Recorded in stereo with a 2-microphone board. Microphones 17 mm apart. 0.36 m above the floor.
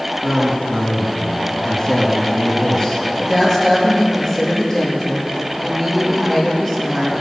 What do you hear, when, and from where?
0.2 s a man speaking: 35° left (ahead or behind), 3 m
3.2 s a woman speaking: 25° left (ahead or behind), 6 m